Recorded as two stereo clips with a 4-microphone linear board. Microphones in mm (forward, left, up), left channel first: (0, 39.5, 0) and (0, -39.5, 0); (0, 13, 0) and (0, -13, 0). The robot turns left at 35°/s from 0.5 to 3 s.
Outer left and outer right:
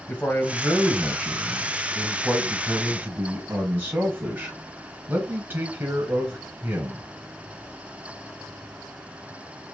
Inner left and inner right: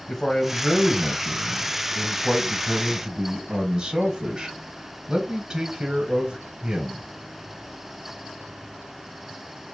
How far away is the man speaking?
About 1.1 m.